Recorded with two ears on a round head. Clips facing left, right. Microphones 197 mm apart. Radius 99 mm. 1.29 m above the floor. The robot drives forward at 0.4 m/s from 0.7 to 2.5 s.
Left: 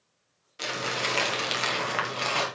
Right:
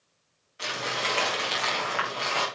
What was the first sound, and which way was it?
Crumpling, 55° left (ahead or behind).